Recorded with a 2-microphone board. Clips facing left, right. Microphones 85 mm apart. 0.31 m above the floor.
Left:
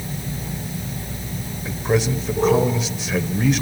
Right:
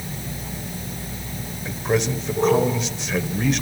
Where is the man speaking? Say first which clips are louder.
Left 1 dB; centre (ahead or behind), 1.3 m.